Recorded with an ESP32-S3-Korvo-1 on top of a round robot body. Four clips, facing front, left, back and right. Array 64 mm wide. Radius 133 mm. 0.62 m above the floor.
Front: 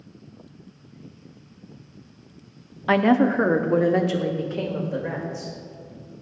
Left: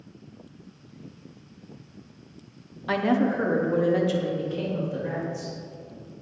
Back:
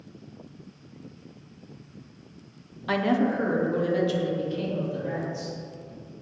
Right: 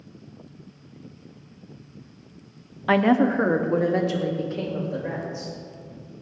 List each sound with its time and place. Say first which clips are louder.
2.9 s a woman speaking: right 4 dB, front 6 dB; 45° right, 1.0 m; by 5.6 s 15° right, 3.5 m